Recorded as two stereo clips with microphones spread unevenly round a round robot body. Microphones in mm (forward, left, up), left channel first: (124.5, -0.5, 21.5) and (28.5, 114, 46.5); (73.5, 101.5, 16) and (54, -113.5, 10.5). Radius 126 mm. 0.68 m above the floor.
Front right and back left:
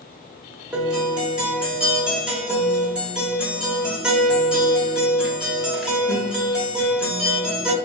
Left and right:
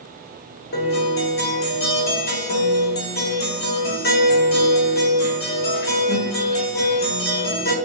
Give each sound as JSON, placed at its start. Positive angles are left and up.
{"t": 0.7, "sound": "a guitar", "azimuth_deg": 40, "distance_m": 1.1}